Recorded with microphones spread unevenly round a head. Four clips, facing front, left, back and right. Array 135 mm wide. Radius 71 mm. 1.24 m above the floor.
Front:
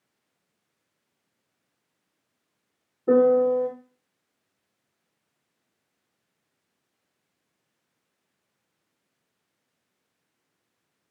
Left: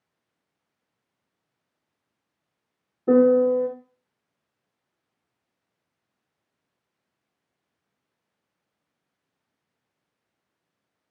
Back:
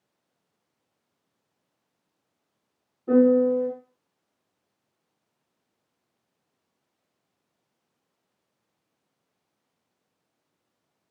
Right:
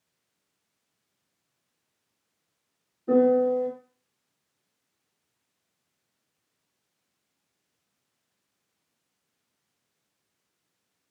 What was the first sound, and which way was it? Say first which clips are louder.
A piano: left 4 dB, even; 50° left.